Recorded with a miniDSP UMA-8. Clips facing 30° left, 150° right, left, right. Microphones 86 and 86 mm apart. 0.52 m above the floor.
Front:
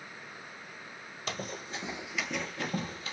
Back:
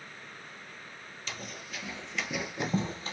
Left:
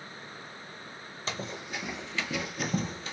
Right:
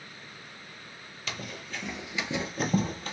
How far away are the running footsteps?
About 0.7 m.